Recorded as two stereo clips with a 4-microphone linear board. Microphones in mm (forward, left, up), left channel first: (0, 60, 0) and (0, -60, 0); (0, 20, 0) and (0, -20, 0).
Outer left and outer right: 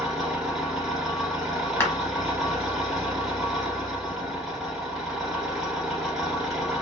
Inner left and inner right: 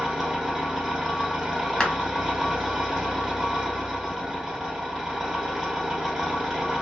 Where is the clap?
20° left (ahead or behind), 0.9 m.